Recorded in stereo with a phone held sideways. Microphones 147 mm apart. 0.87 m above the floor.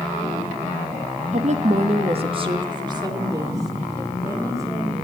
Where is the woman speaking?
50° right (ahead or behind), 0.8 m; by 5.0 s 20° right (ahead or behind), 4 m.